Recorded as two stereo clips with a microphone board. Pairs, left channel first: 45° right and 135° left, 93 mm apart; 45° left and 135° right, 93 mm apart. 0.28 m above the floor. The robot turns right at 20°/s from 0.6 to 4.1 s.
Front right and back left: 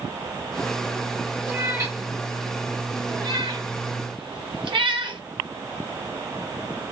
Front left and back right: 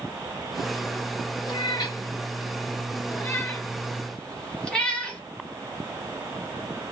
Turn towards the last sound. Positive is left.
turn(degrees=125)